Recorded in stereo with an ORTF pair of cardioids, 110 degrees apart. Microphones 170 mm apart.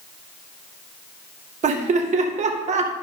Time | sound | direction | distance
1.6 | laughter | 45° right | 1.9 m